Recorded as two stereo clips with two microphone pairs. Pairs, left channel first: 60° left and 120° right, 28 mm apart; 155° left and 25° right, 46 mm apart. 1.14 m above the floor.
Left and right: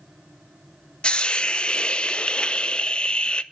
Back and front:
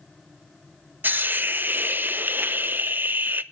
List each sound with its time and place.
1.0 s a hiss: 5° left, 0.5 m